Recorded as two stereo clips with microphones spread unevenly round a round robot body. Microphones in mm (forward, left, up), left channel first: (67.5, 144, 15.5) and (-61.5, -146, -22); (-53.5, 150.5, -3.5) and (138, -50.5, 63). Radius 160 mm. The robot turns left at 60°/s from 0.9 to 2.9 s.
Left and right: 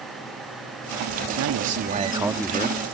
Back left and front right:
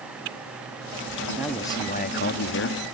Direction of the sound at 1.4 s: 140° right.